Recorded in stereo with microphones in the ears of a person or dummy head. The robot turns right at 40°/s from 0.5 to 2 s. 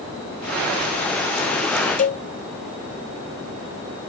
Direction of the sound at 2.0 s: 40° left (ahead or behind).